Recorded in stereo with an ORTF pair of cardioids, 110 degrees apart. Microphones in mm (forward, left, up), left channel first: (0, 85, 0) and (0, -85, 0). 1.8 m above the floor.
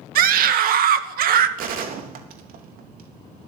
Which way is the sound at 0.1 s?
65° right.